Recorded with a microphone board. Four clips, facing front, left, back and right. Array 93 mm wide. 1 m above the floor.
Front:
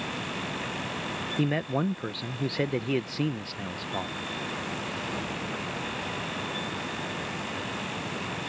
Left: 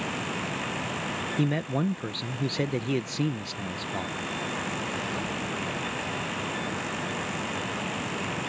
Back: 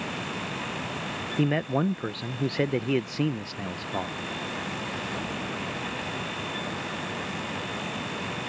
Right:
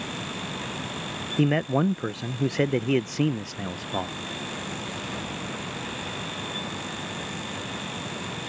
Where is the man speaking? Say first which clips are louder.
Right 6 dB, back 3 dB; 110° right.